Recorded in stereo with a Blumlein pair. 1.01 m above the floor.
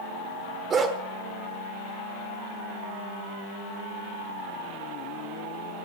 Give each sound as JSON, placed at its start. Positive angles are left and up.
{"t": 0.7, "sound": "a dog barking", "azimuth_deg": -25, "distance_m": 1.3}